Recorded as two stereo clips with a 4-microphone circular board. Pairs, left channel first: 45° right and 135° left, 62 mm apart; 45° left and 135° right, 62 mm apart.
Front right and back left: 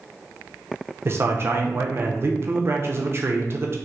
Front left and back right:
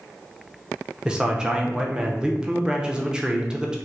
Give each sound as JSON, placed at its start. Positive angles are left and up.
{"t": 1.1, "sound": "a man speaking", "azimuth_deg": 150, "distance_m": 0.5}